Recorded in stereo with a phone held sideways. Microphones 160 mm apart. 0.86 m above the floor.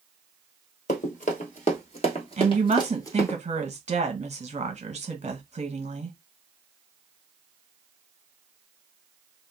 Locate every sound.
0.9 s running footsteps: 50° left (ahead or behind), 1.3 m; by 3.4 s 15° left (ahead or behind), 1.1 m
2.4 s a woman speaking: 45° right (ahead or behind), 0.9 m